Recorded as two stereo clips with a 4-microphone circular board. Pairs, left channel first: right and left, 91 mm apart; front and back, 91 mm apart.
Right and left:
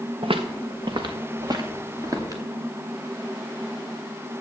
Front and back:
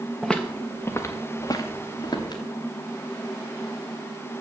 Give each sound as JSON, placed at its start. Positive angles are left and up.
{"t": 0.2, "sound": "footsteps", "azimuth_deg": 90, "distance_m": 1.1}